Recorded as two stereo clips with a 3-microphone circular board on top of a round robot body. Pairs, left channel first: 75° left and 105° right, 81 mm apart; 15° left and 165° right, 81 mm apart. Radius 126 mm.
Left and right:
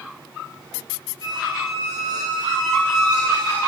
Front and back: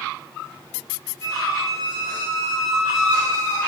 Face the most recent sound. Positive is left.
turn(degrees=-145)